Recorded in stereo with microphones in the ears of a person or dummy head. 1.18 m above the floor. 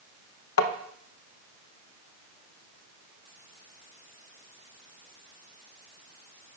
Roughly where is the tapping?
Left.